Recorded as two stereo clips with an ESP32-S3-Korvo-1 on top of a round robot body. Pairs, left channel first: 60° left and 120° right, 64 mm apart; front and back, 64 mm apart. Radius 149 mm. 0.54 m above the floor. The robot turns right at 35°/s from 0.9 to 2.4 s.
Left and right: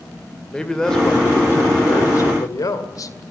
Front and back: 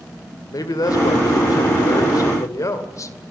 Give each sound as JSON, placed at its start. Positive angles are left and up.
{"t": 0.5, "sound": "a man speaking", "azimuth_deg": -20, "distance_m": 2.0}